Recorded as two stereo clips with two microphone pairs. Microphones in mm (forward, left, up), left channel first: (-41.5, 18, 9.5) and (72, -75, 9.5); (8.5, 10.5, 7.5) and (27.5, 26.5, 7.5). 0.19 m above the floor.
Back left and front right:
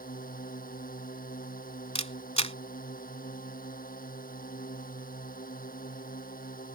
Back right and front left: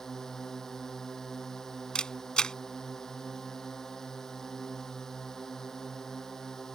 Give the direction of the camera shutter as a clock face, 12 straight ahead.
6 o'clock.